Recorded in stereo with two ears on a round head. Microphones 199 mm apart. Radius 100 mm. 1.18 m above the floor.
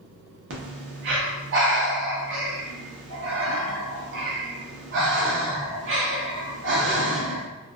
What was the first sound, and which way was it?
Breathing, 50° right (ahead or behind).